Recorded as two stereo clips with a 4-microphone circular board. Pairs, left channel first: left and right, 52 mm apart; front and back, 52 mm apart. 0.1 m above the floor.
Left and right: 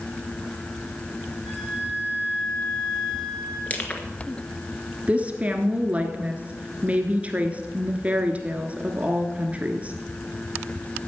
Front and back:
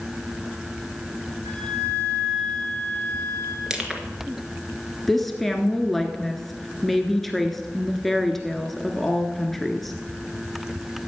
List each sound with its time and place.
1.4 s a flute: straight behind, 4 m
3.7 s crushing: 115° left, 1.4 m
5.1 s a woman speaking: 85° right, 1.2 m